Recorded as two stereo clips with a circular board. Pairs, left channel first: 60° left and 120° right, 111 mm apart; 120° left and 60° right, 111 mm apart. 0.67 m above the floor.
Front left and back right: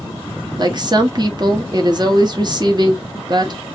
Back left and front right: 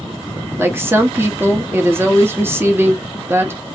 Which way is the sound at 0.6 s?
115° right.